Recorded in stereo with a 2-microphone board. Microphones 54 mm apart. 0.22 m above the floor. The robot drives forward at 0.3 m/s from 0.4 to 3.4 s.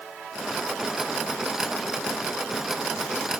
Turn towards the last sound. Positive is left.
No sound to turn to.